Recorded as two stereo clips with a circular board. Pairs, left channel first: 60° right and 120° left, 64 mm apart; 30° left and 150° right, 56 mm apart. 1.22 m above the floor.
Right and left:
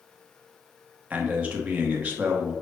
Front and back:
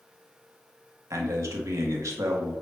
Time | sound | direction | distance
1.1 | a man speaking | 175° right | 0.8 m